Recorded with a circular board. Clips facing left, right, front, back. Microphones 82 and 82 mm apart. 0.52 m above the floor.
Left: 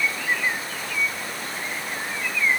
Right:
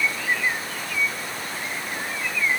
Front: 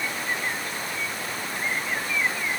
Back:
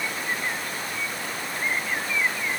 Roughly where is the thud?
I don't hear a thud.